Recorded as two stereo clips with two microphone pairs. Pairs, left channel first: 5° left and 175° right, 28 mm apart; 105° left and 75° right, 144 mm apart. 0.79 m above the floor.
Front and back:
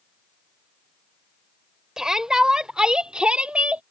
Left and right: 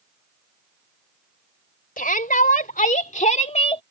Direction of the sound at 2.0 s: 115° left.